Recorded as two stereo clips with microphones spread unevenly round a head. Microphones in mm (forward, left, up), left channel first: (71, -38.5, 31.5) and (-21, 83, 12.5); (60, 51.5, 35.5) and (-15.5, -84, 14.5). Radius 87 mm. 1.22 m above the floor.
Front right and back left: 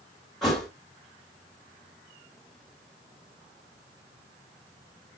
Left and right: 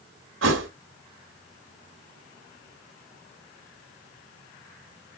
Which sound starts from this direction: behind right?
A thud, at 0.4 s.